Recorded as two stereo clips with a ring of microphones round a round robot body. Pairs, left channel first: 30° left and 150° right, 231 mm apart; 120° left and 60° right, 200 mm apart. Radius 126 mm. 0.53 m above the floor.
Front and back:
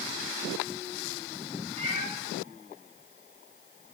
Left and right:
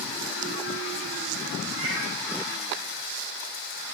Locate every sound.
1.8 s a cat meowing: 85° right, 10 m